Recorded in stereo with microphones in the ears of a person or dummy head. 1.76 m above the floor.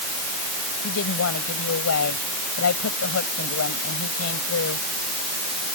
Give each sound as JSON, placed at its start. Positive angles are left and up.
{"t": 0.8, "sound": "a woman speaking", "side_deg": 80}